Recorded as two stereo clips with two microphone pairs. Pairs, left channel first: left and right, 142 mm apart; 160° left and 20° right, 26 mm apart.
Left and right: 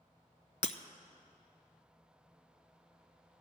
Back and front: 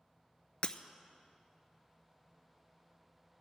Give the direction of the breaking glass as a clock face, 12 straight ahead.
8 o'clock.